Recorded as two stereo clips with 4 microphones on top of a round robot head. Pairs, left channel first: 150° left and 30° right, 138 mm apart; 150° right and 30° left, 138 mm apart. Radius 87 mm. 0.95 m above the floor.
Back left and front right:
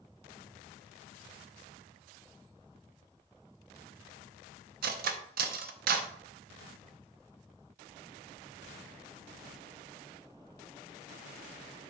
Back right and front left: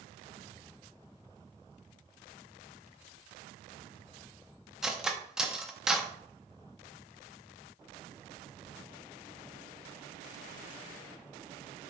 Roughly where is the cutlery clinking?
Ahead right.